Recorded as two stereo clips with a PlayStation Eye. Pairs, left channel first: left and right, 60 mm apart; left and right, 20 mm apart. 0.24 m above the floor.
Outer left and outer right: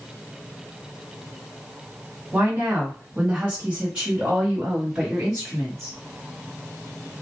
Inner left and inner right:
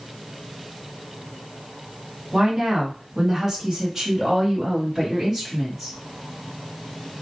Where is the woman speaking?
20° right (ahead or behind), 1.4 m; by 6.0 s 5° right (ahead or behind), 1.6 m.